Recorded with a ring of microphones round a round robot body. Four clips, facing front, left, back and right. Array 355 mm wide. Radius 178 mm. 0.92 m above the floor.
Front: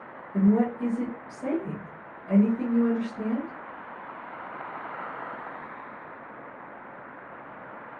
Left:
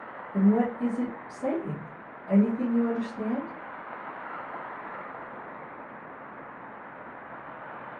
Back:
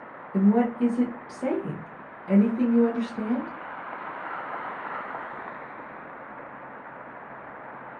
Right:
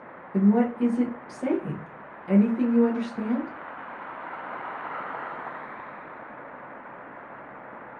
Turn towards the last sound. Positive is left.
turn(degrees=-135)